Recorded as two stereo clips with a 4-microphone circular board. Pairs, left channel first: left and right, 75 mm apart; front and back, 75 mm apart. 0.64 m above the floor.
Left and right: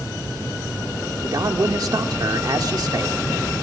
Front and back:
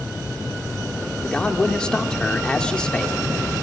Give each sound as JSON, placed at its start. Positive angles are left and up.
{"t": 1.2, "sound": "a man speaking", "azimuth_deg": -75, "distance_m": 1.5}